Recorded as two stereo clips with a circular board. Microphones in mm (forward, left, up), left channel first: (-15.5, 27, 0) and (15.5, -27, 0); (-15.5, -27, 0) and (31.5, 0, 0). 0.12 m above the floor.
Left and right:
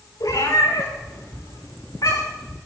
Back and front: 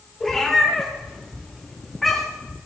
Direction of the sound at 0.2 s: 125° left.